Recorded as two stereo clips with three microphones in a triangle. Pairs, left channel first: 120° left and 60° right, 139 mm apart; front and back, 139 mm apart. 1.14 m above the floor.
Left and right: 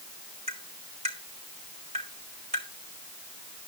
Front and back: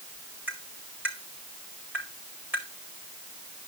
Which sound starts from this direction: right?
Tapping, at 0.5 s.